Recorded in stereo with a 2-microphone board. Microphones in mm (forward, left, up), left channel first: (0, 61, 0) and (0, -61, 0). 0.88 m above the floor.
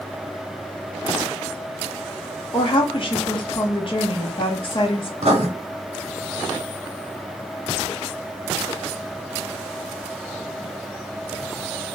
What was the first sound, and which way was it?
A woman speaking, 45° left (ahead or behind).